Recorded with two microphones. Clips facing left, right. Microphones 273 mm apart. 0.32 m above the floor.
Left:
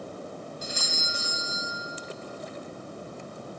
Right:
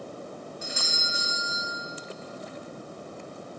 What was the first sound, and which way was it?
A doorbell, 50° left (ahead or behind).